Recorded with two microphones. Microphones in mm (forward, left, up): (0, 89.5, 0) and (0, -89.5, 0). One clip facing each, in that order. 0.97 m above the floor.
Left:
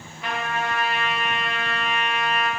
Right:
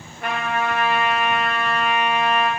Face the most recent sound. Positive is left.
turn(degrees=-50)  # may be behind; listen again after turning